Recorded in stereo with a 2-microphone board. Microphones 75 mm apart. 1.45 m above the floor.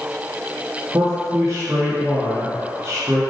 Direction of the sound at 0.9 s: 35° right (ahead or behind).